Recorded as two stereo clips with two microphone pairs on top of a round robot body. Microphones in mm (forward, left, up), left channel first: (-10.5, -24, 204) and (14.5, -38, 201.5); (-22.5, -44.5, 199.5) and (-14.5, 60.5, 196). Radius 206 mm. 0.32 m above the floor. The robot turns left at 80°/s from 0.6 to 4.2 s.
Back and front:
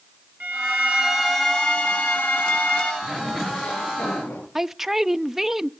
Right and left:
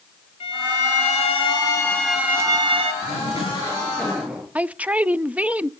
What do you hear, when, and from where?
0.4 s a violin: 65° right, 2 m; by 2.9 s 110° left, 2 m
3.0 s a zipper: 100° right, 9 m; by 4.5 s 165° left, 9 m
4.5 s a man speaking: 25° left, 0.9 m